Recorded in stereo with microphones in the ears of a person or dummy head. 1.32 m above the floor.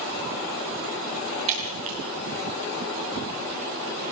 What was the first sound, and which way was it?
Breaking glass, 40° right (ahead or behind).